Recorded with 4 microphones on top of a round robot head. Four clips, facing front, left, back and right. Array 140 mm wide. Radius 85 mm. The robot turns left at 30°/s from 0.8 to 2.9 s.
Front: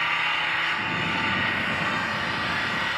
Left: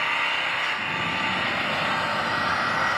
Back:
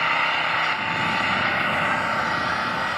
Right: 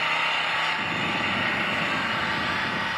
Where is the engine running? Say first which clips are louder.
Even, back 4 dB; 170° right, 1.2 m; by 3.0 s 125° left, 1.2 m.